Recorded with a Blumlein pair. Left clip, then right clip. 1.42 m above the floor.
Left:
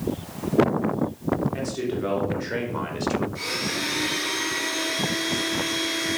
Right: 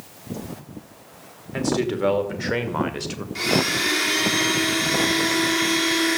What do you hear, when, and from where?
1.5 s a man speaking: 50° right, 3 m; by 3.2 s 10° right, 1.2 m
3.4 s a blender: 55° right, 2.5 m